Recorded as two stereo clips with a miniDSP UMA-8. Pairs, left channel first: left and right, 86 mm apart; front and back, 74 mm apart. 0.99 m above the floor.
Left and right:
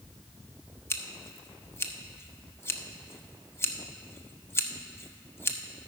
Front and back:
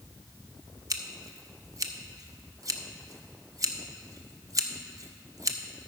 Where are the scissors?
150° left, 0.6 m.